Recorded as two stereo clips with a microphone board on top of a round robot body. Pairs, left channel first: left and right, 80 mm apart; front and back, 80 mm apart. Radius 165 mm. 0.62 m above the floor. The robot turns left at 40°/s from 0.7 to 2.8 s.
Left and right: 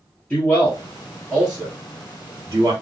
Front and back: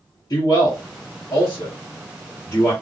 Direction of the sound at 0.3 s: 15° left.